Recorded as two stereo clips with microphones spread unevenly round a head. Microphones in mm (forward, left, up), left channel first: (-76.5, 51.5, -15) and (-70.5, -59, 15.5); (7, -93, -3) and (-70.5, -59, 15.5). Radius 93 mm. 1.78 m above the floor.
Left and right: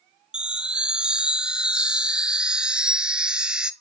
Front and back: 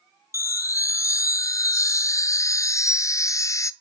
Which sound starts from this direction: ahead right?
A chime, at 0.3 s.